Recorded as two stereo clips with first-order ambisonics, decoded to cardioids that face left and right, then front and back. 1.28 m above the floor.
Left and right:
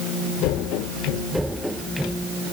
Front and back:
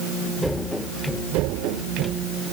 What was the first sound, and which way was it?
Only background noise.